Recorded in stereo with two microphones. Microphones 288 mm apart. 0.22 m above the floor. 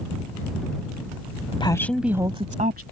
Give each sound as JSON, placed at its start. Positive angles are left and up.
{"t": 1.5, "sound": "a woman speaking", "side_deg": 20}